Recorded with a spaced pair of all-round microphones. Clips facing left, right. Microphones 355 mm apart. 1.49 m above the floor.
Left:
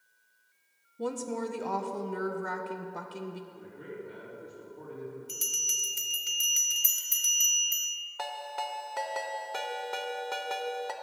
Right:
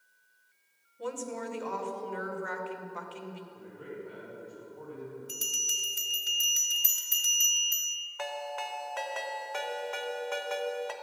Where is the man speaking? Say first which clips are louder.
Even; 30° left (ahead or behind), 3.5 m.